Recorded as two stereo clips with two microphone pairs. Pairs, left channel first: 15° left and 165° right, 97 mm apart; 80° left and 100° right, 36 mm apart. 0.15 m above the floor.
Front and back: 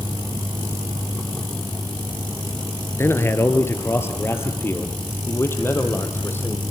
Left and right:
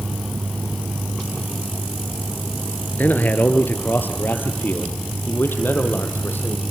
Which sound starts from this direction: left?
A man speaking, at 3.0 s.